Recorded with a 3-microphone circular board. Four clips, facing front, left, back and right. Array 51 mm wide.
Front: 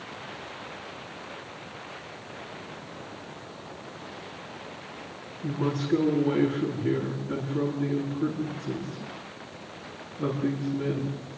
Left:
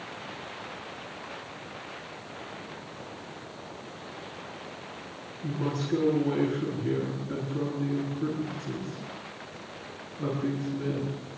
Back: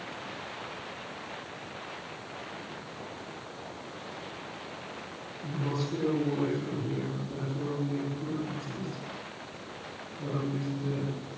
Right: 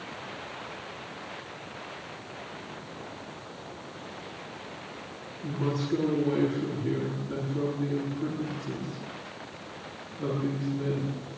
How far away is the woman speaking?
About 9 m.